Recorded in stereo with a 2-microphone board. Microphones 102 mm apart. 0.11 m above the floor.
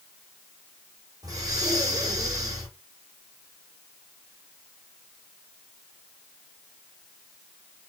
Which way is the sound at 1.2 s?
40° right (ahead or behind).